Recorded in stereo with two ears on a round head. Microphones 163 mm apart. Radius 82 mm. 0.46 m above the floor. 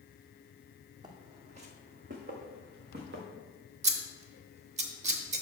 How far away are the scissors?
About 0.8 m.